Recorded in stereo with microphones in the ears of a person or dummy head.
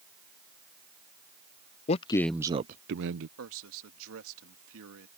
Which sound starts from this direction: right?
A man speaking, at 3.4 s.